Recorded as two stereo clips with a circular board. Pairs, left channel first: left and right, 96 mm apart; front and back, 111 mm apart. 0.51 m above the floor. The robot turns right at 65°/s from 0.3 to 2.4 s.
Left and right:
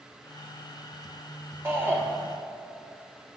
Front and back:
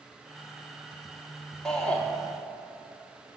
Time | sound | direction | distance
1.6 | a shout | 75° right | 1.2 m